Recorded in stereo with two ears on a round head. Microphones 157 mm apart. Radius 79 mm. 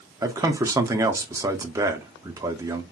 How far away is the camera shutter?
No camera shutter in this recording.